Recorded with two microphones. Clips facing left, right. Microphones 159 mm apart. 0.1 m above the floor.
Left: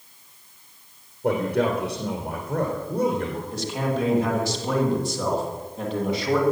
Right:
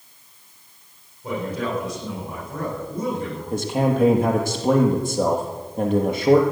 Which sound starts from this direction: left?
A man speaking, at 1.2 s.